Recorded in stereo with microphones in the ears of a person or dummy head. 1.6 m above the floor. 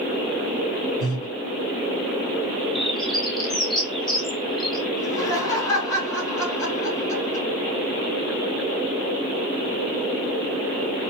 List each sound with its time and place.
1.0 s breathing: 25° left (ahead or behind), 1.8 m
2.8 s a bird: centre (ahead or behind), 0.5 m
5.0 s laughter: 20° left (ahead or behind), 2.5 m